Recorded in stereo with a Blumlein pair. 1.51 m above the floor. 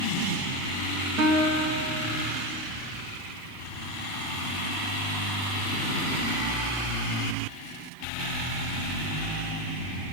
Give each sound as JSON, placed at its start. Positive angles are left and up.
{"t": 1.2, "sound": "a guitar", "azimuth_deg": -30, "distance_m": 2.5}